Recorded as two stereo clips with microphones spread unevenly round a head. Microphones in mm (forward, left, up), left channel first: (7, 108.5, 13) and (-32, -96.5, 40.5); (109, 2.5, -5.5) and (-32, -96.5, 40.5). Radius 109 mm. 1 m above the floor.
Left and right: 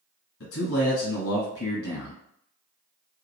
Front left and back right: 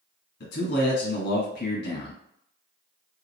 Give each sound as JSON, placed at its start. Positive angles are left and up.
{"t": 0.4, "sound": "a man speaking", "azimuth_deg": 55, "distance_m": 1.2}